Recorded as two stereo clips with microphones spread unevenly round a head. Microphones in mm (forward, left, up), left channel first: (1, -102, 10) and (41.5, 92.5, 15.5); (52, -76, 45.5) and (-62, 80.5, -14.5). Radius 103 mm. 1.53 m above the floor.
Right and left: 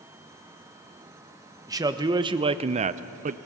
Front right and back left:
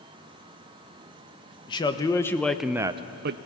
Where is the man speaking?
5° left, 1.2 m; by 3.4 s 100° left, 0.5 m.